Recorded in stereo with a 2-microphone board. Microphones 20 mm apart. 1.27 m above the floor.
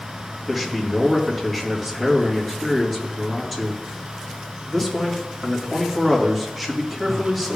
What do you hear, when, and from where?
0.5 s a man speaking: 10° left (ahead or behind), 2.5 m